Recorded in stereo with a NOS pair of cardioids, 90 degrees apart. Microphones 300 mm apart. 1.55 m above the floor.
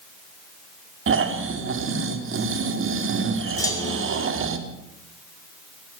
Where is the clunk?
10° left, 5 m.